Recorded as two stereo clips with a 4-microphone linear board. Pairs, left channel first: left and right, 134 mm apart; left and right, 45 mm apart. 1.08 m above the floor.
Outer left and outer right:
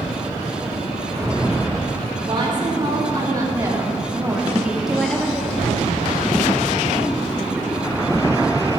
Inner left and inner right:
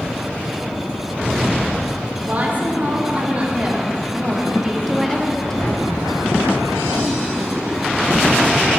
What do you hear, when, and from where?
2.2 s a woman speaking: 40° right (ahead or behind), 3 m; by 5.9 s 15° left (ahead or behind), 1.7 m